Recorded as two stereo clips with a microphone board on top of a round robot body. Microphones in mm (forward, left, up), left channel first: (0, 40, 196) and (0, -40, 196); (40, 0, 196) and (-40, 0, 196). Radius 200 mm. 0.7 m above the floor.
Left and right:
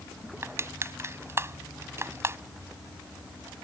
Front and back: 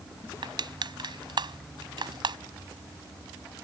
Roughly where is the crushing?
Behind right.